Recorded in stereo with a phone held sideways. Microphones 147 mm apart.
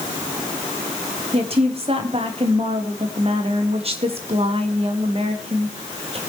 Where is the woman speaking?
40° right (ahead or behind), 3 m.